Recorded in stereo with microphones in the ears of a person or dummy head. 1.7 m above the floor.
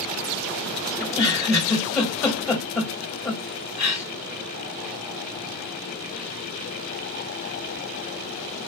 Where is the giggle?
Centre (ahead or behind), 1.0 m.